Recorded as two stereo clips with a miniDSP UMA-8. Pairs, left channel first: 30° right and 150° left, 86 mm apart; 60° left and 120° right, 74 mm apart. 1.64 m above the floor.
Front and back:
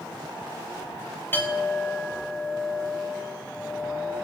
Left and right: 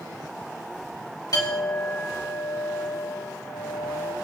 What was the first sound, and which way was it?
A clink, 35° left.